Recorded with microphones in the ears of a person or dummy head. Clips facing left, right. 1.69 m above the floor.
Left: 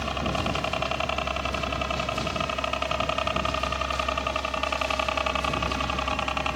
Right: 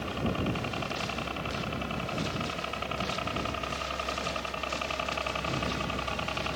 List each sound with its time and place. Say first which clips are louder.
0.0 s a helicopter: left 2 dB; 75° left (ahead or behind); by 6.6 s 70° left (ahead or behind)